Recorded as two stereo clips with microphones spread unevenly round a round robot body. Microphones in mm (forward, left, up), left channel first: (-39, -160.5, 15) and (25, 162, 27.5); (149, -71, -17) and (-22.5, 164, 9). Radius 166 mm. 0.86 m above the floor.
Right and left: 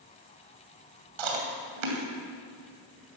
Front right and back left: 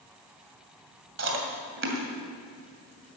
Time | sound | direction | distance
1.2 | chewing | 75° left | 2.5 m